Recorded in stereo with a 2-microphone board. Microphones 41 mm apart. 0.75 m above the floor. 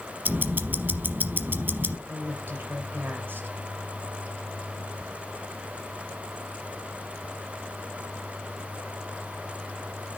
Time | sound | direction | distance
0.2 | ticking | 50° right (ahead or behind) | 0.9 m
2.1 | a woman speaking | 55° right (ahead or behind) | 3 m